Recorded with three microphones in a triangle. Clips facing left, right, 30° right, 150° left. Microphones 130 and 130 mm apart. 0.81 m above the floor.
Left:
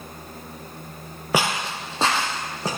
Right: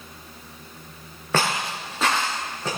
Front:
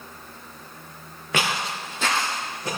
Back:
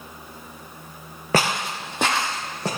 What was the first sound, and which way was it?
Footsteps, 160° left.